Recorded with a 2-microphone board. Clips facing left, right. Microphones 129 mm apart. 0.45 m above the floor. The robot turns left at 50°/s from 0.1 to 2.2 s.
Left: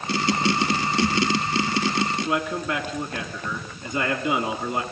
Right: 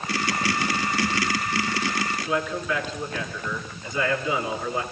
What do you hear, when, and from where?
2.2 s a man speaking: 60° left (ahead or behind), 5.5 m